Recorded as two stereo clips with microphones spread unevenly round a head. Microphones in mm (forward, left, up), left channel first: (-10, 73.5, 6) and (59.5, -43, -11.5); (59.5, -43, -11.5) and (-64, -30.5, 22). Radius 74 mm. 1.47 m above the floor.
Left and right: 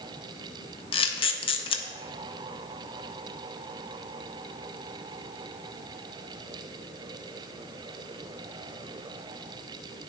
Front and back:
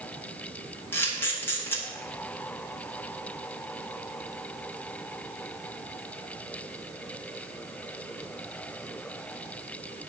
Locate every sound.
0.9 s a camera shutter: 75° left, 0.7 m